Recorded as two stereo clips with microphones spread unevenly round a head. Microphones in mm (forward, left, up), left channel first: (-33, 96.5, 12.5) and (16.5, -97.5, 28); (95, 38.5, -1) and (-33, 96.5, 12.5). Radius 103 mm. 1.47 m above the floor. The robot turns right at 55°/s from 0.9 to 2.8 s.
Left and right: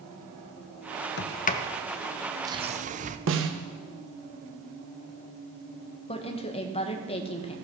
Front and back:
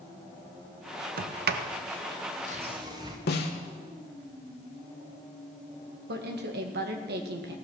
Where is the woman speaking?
165° left, 1.8 m.